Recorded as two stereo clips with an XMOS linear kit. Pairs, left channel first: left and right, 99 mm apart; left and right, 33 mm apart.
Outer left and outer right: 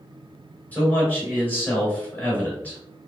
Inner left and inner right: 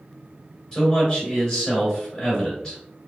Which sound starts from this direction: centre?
A man speaking, at 0.7 s.